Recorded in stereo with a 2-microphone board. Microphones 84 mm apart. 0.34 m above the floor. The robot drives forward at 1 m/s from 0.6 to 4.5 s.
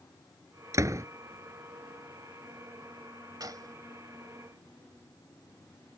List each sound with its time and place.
0.7 s a door slam: 40° right (ahead or behind); by 1.1 s 35° right (ahead or behind)
3.4 s a gunshot: 50° right (ahead or behind); by 3.8 s 45° right (ahead or behind)